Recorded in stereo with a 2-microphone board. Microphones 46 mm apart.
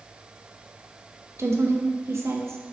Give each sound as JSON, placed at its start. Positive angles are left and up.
{"t": 1.4, "sound": "a woman speaking", "side_deg": -80, "distance_m": 1.1}